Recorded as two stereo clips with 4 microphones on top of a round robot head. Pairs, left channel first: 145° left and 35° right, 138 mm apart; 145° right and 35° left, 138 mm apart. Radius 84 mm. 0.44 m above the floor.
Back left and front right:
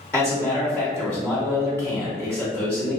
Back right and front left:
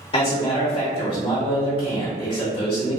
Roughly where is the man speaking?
Behind right.